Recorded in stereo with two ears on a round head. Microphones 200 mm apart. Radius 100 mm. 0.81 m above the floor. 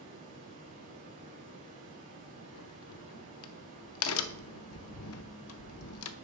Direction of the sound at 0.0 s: 35° right (ahead or behind).